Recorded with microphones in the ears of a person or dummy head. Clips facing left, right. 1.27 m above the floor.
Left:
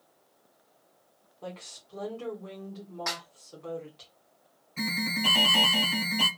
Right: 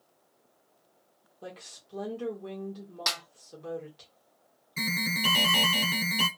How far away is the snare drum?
About 0.5 m.